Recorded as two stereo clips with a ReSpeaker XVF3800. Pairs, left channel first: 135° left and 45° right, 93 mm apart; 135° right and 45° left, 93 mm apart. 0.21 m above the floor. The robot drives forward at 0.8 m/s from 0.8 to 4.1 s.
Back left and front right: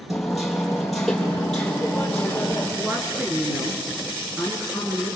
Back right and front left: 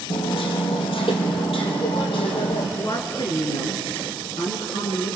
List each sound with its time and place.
0.1 s hammering: 135° right, 3.5 m; by 2.7 s 150° right, 4.5 m
2.8 s a woman speaking: 105° right, 2.5 m; by 5.2 s 130° right, 3 m